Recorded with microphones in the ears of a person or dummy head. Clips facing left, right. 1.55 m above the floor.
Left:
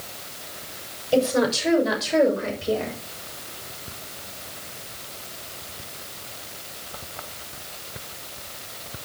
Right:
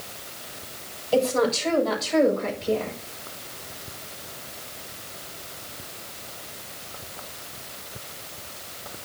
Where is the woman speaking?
15° left (ahead or behind), 7.5 m; by 2.9 s 10° left (ahead or behind), 6.5 m.